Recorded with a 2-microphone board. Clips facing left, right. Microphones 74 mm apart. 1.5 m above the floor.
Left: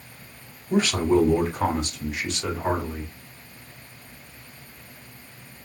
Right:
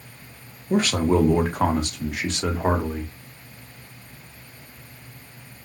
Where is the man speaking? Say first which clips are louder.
Even; 50° right (ahead or behind), 1.4 m; by 3.1 s 65° right (ahead or behind), 1.4 m.